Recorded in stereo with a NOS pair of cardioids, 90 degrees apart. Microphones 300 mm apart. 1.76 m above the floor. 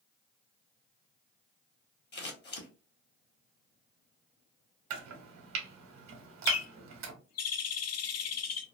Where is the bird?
60° left, 0.6 m.